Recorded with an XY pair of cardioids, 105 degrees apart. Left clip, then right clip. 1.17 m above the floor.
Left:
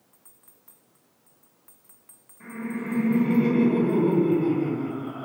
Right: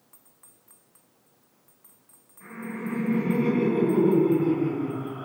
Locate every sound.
2.4 s laughter: 45° left, 1.7 m